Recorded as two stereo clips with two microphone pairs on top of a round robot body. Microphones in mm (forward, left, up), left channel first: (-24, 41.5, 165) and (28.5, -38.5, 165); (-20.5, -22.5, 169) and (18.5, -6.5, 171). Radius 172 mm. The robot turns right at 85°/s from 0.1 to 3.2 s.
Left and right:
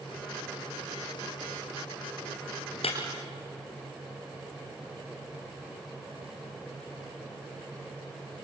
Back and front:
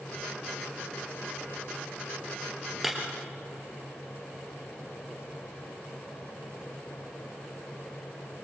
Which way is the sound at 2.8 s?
105° left.